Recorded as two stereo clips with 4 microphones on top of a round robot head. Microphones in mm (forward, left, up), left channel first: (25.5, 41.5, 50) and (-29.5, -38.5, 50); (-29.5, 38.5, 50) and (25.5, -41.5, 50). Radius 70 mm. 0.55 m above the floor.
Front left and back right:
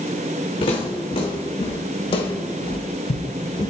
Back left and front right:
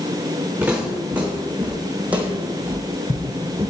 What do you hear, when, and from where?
0.6 s footsteps: 25° left, 3 m; by 3.7 s 5° left, 0.6 m